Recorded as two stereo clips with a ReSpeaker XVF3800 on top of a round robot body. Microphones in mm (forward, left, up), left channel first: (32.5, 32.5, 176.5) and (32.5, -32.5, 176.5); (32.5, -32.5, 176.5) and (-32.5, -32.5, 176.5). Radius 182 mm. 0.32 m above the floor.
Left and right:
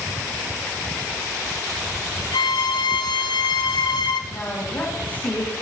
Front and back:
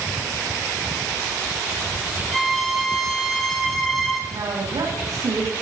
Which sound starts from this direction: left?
A violin, at 2.3 s.